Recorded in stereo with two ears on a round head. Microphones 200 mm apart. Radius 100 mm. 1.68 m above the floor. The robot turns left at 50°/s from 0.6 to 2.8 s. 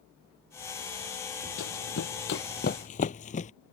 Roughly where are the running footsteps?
Left.